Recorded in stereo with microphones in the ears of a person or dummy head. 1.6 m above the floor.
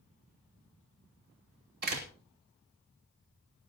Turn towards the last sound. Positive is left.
turn(degrees=-50)  # may be behind; listen again after turning